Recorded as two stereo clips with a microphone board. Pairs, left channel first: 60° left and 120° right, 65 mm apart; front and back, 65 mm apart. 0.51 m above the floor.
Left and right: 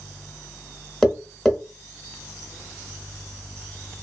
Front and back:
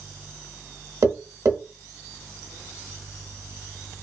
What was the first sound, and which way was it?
Tapping, 145° left.